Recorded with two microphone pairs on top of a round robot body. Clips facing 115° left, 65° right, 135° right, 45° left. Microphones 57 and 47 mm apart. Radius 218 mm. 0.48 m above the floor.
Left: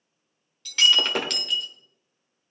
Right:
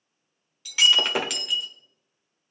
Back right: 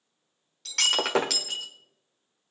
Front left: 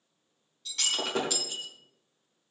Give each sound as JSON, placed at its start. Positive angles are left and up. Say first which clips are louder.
{"t": 0.7, "sound": "breaking glass", "louder": "even, back right 6 dB", "azimuth_deg": -150, "distance_m": 1.3}